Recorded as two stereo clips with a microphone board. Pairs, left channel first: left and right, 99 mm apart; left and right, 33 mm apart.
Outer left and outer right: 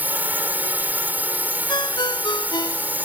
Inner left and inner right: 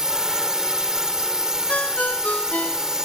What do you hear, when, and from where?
0.0 s a drone: 20° right (ahead or behind)
1.7 s a ringtone: 50° left (ahead or behind)